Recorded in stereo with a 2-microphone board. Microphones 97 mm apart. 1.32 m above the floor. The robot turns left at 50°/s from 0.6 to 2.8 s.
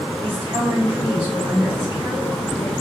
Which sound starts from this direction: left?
A woman speaking, at 0.2 s.